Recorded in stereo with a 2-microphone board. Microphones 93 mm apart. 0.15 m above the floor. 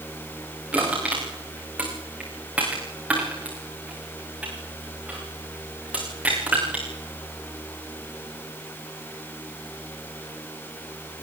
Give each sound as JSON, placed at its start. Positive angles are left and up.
{"t": 0.7, "sound": "crushing", "side_deg": -10, "distance_m": 9.5}